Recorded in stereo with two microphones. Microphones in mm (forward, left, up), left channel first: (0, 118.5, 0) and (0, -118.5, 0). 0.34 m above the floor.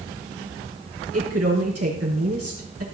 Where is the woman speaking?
75° right (ahead or behind), 5 m.